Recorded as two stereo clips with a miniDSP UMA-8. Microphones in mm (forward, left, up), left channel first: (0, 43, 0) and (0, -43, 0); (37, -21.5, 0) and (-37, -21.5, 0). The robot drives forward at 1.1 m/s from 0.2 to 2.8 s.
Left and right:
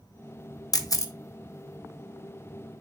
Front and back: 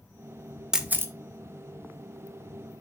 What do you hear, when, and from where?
0.7 s a camera shutter: 100° left, 0.7 m; by 1.1 s 135° left, 0.9 m